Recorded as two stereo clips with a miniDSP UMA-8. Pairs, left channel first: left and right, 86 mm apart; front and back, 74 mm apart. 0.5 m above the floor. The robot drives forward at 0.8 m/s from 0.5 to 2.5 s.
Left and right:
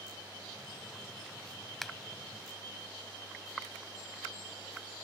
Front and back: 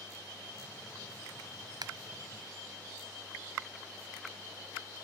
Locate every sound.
1.8 s a finger snap: 175° left